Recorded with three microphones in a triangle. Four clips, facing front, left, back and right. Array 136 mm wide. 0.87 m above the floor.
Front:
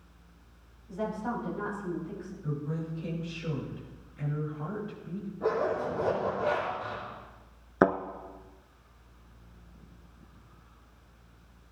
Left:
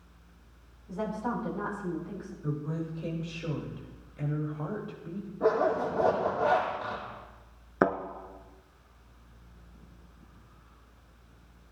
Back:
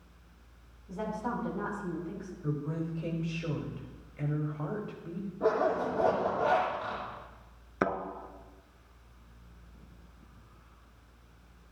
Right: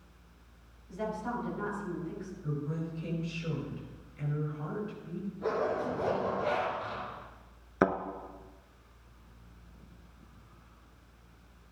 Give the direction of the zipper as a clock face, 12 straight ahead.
8 o'clock.